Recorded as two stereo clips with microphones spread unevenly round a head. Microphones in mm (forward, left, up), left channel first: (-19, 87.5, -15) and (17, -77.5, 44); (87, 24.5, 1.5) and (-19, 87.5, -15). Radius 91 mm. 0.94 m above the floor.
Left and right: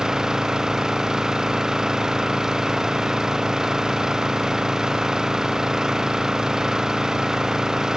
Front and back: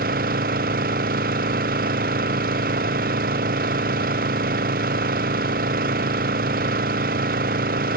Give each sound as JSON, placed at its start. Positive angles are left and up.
{"t": 0.0, "sound": "an engine running", "azimuth_deg": -165}